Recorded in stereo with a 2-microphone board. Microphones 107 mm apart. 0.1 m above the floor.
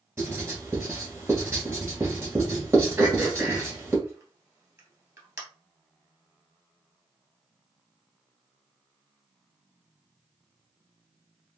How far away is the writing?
About 1.5 m.